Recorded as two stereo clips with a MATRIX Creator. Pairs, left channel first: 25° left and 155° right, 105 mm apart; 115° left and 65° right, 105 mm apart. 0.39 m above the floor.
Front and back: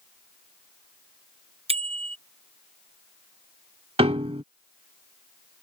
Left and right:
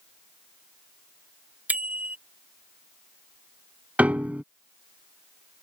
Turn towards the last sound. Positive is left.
turn(degrees=-145)